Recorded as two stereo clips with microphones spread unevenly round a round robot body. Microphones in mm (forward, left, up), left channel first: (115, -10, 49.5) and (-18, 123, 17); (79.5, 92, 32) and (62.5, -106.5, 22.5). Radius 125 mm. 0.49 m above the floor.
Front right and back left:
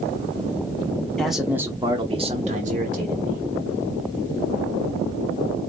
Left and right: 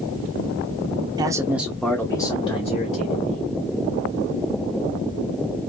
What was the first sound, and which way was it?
A man speaking, 145° right.